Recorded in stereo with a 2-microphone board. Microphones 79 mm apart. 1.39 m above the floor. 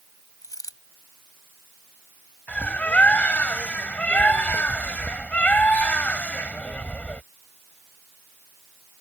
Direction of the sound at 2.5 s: 20° left (ahead or behind).